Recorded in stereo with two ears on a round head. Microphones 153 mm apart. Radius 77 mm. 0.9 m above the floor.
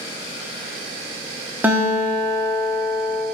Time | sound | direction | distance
1.6 | a guitar | 10° right (ahead or behind) | 1.1 m